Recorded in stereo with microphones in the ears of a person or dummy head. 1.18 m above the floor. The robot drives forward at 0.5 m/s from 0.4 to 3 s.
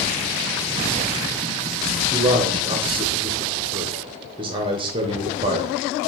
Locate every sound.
2.1 s a man speaking: 20° right (ahead or behind), 0.7 m